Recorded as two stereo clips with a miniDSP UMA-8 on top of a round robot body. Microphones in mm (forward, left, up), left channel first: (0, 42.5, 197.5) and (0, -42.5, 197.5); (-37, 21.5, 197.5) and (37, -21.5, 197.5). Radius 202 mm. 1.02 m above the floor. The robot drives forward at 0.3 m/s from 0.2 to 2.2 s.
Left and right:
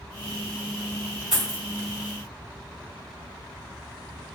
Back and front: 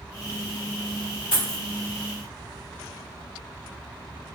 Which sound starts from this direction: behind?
A dropped coin, at 1.3 s.